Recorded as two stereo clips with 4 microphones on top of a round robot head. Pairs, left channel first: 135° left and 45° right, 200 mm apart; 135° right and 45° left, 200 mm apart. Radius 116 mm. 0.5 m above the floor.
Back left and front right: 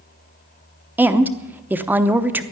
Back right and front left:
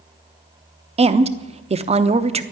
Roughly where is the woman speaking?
Ahead left.